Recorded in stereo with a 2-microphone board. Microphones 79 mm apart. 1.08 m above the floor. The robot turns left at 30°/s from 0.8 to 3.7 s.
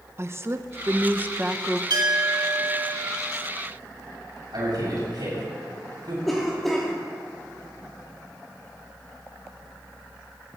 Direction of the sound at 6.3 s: Centre (ahead or behind).